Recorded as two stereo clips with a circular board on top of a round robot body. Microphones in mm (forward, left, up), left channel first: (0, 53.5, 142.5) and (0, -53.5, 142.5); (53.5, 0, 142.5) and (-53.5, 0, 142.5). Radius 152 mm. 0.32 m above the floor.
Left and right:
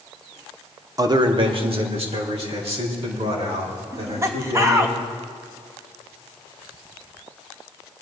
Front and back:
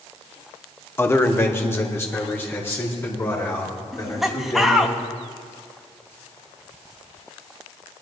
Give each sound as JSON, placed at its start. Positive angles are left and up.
{"t": 1.0, "sound": "a man speaking", "azimuth_deg": -55, "distance_m": 1.0}
{"t": 3.9, "sound": "laughter", "azimuth_deg": -95, "distance_m": 1.4}